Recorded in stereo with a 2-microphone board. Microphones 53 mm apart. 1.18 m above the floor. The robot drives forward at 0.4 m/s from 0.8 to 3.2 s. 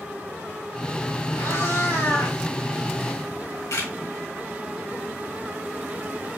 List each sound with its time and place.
1.4 s a cat meowing: 70° left (ahead or behind), 2.5 m; by 2.4 s 65° left (ahead or behind), 2.5 m
3.3 s a camera shutter: 70° left (ahead or behind), 2.5 m